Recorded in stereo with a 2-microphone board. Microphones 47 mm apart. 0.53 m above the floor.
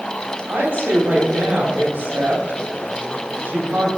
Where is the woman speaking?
50° right (ahead or behind), 2 m.